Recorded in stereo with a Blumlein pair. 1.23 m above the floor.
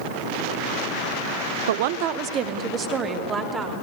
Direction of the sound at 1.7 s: 60° right.